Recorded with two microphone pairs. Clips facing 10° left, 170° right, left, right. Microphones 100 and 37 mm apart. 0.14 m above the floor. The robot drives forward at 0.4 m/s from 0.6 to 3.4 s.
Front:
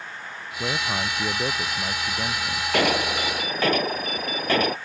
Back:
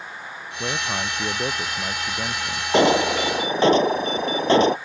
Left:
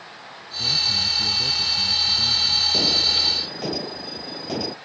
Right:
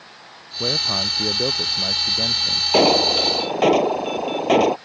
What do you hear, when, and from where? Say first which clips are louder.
0.6 s a man speaking: even, right 1 dB; 80° right; by 2.6 s 90° right
2.7 s an alarm: back 6 dB, right 6 dB; 105° right; by 4.8 s 110° right